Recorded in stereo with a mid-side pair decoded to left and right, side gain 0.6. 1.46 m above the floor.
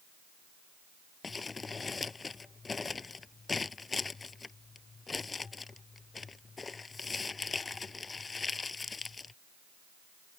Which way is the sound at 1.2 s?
25° left.